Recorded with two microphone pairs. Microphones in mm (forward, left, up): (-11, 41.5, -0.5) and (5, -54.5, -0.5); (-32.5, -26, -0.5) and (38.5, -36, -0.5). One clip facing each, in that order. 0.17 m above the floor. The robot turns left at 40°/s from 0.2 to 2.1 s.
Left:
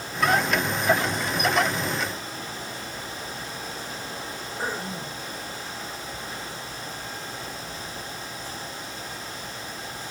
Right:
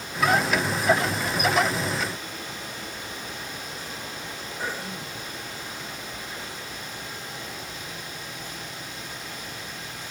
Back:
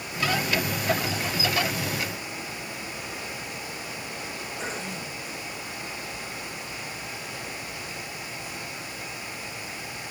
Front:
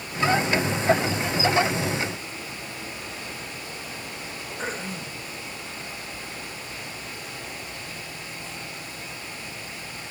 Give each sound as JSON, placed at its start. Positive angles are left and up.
{"t": 4.6, "sound": "throat clearing", "azimuth_deg": 40, "distance_m": 5.0}